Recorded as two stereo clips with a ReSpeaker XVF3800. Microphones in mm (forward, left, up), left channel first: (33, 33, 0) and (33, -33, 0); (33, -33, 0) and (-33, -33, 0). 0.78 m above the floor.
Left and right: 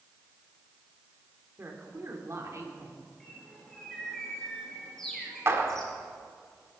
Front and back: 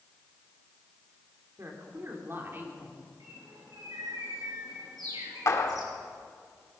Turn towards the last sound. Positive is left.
turn(degrees=-40)